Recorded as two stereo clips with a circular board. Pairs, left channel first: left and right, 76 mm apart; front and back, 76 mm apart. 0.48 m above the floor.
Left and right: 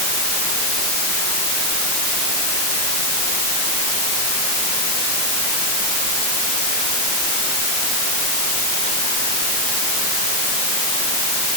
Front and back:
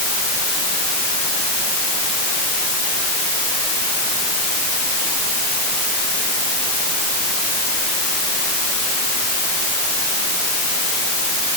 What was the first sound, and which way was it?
Only background noise.